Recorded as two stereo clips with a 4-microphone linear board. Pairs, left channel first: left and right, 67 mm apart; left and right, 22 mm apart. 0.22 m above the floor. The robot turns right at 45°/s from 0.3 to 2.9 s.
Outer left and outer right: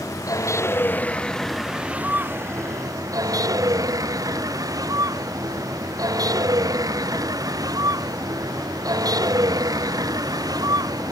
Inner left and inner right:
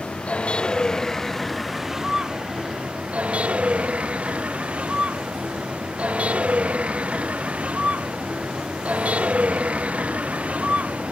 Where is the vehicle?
55° left (ahead or behind); by 11.1 s 70° right (ahead or behind).